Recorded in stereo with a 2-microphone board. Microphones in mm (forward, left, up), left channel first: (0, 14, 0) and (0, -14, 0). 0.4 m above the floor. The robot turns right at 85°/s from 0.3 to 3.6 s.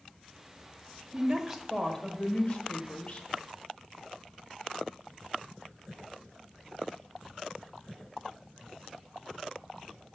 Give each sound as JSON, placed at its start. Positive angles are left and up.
{"t": 1.1, "sound": "a woman speaking", "azimuth_deg": -45, "distance_m": 1.4}